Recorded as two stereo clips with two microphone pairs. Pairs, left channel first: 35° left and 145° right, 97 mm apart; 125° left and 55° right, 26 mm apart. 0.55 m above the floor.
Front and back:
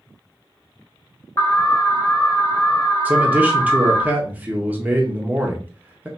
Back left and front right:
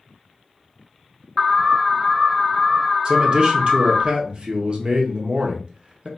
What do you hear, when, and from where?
1.4 s an alarm: 55° left, 0.7 m
3.0 s a man speaking: 80° right, 0.8 m